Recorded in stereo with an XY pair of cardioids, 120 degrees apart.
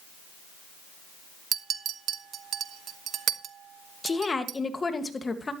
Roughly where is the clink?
Ahead right.